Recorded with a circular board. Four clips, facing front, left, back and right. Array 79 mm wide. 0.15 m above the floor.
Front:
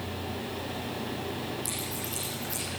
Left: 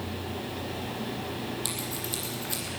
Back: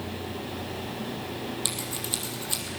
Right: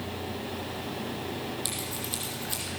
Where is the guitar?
No guitar in this recording.